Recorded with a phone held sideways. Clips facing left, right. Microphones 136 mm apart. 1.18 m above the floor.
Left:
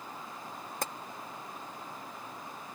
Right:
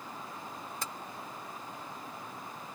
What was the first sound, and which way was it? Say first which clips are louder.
Tapping: left 6 dB; 55° left (ahead or behind).